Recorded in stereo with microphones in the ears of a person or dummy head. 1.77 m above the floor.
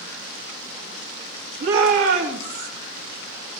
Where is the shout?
50° right (ahead or behind), 1.0 m; by 2.7 s 70° right (ahead or behind), 1.5 m.